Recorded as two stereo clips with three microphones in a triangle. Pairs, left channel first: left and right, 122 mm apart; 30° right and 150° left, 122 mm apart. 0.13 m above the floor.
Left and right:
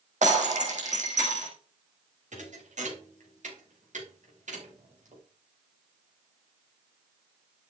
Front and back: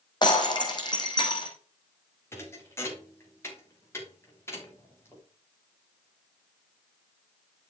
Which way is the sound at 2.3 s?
100° right.